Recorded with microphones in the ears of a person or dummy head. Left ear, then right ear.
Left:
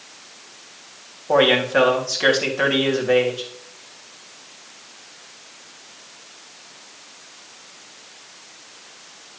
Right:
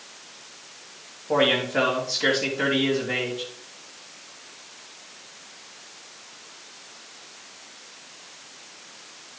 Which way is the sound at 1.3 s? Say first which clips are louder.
Left 5 dB; 40° left (ahead or behind).